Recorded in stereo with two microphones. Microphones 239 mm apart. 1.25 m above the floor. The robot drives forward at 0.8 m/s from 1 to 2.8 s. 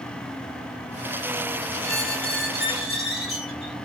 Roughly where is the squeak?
Centre.